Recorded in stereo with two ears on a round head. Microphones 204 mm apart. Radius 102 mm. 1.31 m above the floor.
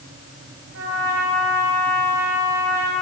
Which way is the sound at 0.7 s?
65° right (ahead or behind).